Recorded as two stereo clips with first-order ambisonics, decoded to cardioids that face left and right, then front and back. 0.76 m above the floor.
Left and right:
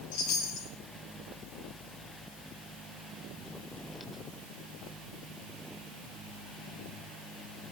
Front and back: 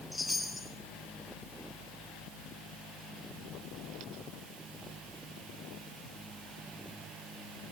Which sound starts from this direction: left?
A chime, at 0.1 s.